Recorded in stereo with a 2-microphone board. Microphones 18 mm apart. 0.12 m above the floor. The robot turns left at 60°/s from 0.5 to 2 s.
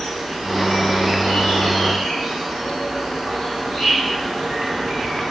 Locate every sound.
0.0 s an insect: 45° right, 4 m; by 5.3 s 135° right, 4 m